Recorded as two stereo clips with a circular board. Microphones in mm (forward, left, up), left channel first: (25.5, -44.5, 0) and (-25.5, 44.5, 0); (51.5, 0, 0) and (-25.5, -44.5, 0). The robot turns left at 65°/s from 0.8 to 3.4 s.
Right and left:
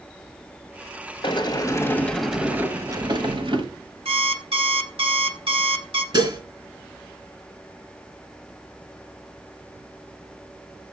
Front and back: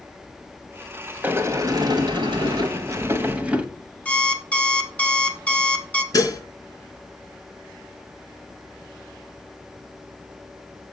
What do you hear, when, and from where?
1.2 s a sliding door: 85° right, 1.3 m; by 3.6 s 135° left, 1.3 m
4.0 s an alarm clock: 105° left, 1.6 m
6.1 s dishes clattering: 80° left, 2.5 m